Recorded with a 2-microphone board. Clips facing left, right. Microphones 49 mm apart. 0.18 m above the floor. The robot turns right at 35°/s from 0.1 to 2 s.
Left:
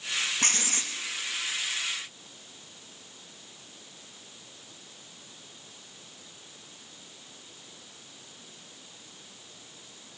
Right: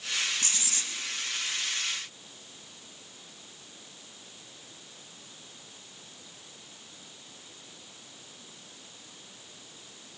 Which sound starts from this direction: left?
Writing, at 0.4 s.